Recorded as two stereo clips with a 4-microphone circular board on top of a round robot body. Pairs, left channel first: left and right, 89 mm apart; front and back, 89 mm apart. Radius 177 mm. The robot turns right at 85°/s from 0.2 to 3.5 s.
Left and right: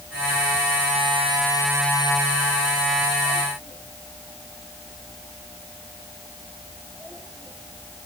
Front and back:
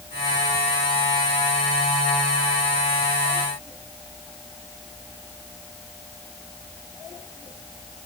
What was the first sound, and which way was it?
Only background noise.